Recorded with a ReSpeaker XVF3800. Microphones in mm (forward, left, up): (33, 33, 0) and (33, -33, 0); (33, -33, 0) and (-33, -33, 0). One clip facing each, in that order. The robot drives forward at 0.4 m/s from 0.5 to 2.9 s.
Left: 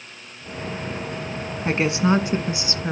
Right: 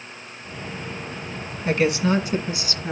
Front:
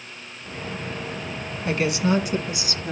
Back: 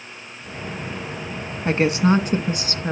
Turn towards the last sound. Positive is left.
turn(degrees=150)